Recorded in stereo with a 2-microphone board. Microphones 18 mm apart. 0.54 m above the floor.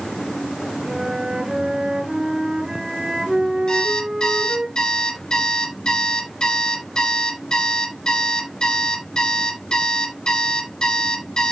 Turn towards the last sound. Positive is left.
turn(degrees=40)  # may be behind; listen again after turning